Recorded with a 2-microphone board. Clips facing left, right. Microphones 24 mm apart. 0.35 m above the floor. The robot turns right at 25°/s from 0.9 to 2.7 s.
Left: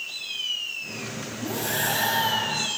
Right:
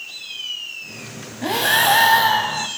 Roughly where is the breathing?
Right.